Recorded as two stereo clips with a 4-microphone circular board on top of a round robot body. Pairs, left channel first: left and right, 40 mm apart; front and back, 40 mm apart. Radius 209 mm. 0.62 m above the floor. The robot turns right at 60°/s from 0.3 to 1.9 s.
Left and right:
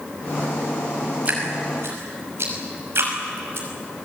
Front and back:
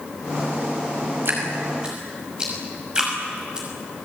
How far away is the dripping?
About 6 m.